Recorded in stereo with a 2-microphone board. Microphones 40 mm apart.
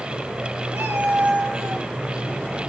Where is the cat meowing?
70° right (ahead or behind), 1.6 m; by 1.9 s 45° right (ahead or behind), 1.3 m.